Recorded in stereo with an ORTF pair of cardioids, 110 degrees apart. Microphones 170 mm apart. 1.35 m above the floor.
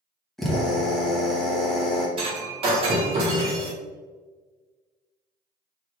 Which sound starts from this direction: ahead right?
Breaking glass, at 2.2 s.